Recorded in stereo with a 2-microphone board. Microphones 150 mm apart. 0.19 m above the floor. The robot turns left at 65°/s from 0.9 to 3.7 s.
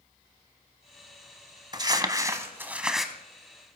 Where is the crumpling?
30° right (ahead or behind), 0.9 m; by 3.1 s centre (ahead or behind), 0.9 m.